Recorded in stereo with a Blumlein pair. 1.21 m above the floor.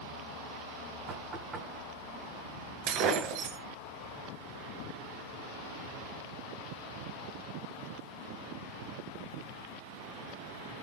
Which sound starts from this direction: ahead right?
Breaking glass, at 2.9 s.